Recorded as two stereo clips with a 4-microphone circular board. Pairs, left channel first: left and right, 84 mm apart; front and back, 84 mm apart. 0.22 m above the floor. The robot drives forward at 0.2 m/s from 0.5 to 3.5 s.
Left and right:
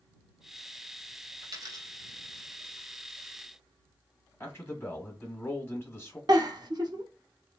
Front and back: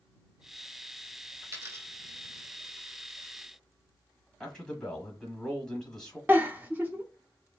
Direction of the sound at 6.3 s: 115° right.